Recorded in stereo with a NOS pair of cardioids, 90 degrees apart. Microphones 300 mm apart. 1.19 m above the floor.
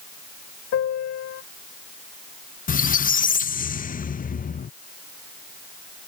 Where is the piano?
55° left.